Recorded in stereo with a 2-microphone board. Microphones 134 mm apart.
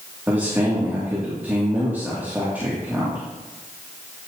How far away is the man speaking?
About 3 m.